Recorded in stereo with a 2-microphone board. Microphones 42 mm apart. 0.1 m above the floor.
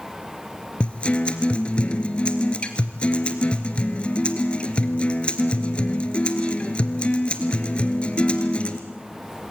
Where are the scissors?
I don't hear scissors.